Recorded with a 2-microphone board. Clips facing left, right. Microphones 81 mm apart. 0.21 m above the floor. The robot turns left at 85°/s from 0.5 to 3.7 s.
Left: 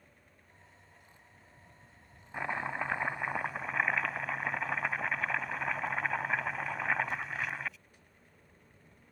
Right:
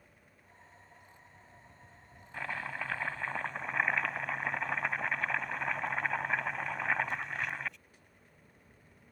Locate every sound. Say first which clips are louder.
2.3 s chopping: left 3 dB; 20° left (ahead or behind); by 7.8 s centre (ahead or behind)